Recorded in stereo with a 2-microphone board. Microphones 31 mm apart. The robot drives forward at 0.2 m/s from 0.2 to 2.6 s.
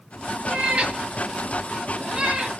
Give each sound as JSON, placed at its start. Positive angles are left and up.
{"t": 0.5, "sound": "a cat meowing", "side_deg": -45, "distance_m": 0.8}